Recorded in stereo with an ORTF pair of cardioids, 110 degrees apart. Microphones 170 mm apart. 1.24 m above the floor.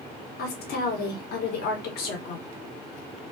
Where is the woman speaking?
70° left, 1.0 m.